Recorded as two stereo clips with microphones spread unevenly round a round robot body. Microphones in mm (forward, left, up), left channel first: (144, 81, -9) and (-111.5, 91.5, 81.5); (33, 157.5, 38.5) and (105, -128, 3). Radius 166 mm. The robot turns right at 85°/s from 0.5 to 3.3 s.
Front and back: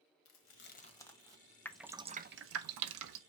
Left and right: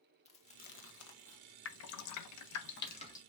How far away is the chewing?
About 1.2 m.